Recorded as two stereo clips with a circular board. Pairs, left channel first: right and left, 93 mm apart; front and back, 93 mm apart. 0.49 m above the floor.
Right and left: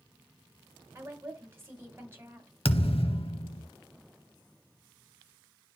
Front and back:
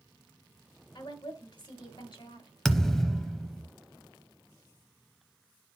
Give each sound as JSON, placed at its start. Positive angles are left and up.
{"t": 0.9, "sound": "a woman speaking", "azimuth_deg": 25, "distance_m": 2.5}
{"t": 2.6, "sound": "a thud", "azimuth_deg": -85, "distance_m": 0.8}